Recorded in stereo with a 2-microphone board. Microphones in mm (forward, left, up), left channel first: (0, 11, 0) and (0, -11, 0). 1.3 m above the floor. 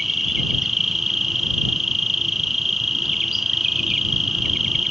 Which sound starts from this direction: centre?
An insect, at 0.0 s.